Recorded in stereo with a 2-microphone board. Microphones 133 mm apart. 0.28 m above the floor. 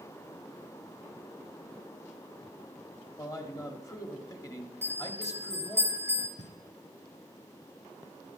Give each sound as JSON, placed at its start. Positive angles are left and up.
{"t": 3.2, "sound": "a man speaking", "side_deg": 25, "distance_m": 1.1}
{"t": 4.8, "sound": "a bell", "side_deg": -20, "distance_m": 4.5}
{"t": 6.4, "sound": "knocking", "side_deg": -70, "distance_m": 2.5}